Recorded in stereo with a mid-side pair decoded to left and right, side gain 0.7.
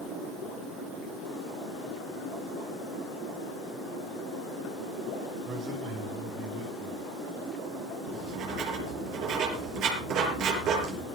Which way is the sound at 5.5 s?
55° right.